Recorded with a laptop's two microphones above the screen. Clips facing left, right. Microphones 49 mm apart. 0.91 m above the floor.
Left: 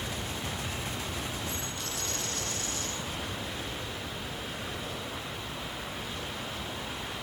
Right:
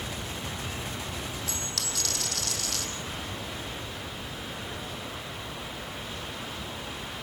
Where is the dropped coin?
80° right, 5 m.